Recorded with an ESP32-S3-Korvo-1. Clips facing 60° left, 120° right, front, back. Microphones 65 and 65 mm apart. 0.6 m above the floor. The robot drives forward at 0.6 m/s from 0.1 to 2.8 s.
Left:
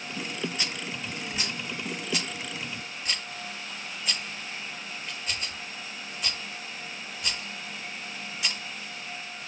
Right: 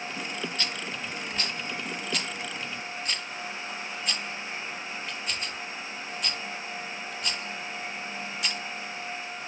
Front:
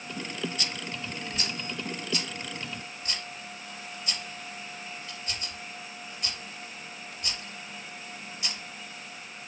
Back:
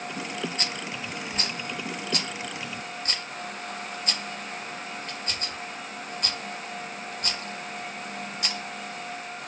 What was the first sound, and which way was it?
A rattle, 135° left.